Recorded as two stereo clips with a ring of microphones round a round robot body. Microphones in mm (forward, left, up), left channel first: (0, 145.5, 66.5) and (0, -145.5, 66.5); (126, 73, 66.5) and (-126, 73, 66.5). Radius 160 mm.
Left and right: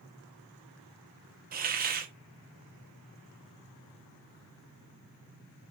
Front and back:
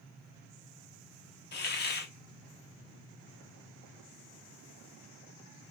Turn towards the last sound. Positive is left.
turn(degrees=-40)